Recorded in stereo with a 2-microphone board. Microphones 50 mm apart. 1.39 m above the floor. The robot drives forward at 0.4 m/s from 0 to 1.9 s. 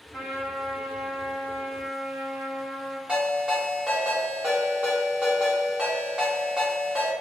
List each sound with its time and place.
0.1 s a trumpet: 30° right (ahead or behind), 1.4 m; by 3.0 s 50° right (ahead or behind), 1.0 m
3.1 s a ringtone: 25° right (ahead or behind), 1.5 m